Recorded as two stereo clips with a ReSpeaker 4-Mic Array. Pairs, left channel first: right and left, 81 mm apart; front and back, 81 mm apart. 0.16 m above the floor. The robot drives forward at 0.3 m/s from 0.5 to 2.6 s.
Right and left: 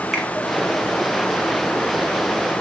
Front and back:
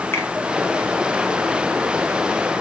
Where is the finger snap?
10° left, 1.0 m.